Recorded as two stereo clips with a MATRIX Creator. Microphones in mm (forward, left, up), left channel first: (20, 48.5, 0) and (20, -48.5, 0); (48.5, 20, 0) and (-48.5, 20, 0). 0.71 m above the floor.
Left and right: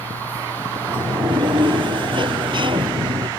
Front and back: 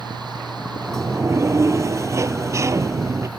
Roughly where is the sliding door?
Behind right.